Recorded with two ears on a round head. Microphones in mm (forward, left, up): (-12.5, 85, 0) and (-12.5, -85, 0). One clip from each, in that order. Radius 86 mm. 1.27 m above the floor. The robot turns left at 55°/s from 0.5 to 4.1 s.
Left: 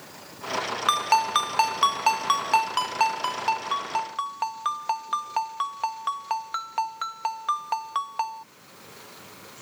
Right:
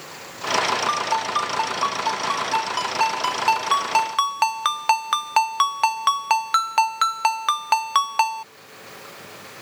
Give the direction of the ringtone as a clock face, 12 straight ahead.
8 o'clock.